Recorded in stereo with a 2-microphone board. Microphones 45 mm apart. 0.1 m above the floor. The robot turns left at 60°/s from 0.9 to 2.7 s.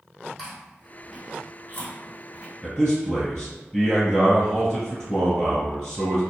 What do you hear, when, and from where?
0.4 s chewing: centre (ahead or behind), 1.7 m; by 2.5 s 65° left (ahead or behind), 1.7 m
2.6 s a man speaking: 20° left (ahead or behind), 1.7 m; by 6.2 s 25° left (ahead or behind), 1.7 m